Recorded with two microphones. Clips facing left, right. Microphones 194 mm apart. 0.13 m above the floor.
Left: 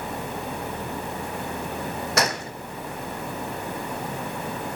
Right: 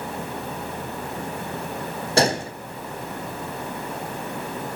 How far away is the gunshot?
About 1.1 m.